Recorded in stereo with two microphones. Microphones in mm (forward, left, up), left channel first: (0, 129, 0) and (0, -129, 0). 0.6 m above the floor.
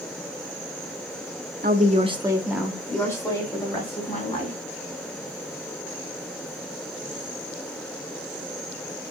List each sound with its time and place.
1.6 s a woman speaking: 35° right (ahead or behind), 0.7 m; by 4.6 s 25° left (ahead or behind), 1.7 m